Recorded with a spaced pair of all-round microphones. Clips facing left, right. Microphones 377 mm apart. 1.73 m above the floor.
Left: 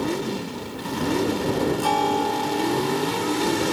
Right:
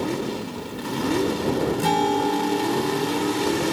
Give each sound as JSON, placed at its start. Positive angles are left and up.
{"t": 1.8, "sound": "a guitar", "side_deg": -30}